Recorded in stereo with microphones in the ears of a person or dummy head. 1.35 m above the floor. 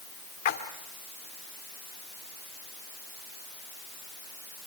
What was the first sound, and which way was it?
A splash, 45° left (ahead or behind).